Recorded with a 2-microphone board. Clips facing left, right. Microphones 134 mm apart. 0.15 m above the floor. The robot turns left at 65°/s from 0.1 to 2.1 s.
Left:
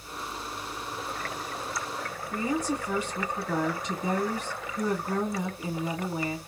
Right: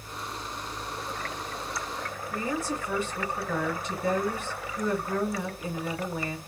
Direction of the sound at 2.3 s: 15° left (ahead or behind).